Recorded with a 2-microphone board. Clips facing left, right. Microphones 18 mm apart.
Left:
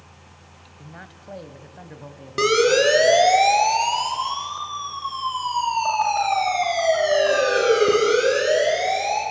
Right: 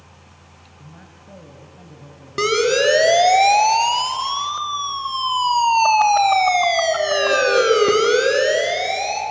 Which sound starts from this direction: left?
A man speaking, at 0.8 s.